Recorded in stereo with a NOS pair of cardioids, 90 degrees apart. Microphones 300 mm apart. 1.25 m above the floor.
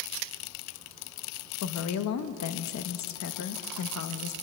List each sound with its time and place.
1.6 s a woman speaking: 65° left, 2 m